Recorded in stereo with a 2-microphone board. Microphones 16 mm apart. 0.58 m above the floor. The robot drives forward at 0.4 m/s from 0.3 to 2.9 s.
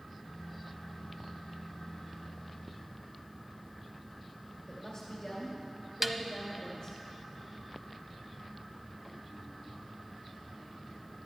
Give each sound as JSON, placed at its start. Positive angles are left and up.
{"t": 4.7, "sound": "a woman speaking", "side_deg": 30, "distance_m": 2.0}
{"t": 6.0, "sound": "a snare drum", "side_deg": -20, "distance_m": 0.6}